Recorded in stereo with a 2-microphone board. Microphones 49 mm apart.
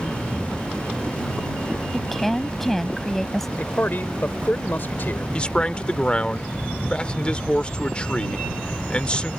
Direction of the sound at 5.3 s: 25° left (ahead or behind).